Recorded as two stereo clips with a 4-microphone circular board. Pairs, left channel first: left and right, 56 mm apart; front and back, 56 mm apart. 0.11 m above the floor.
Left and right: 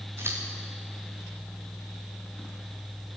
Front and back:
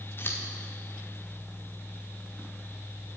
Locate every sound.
0.2 s scissors: 45° right, 3.5 m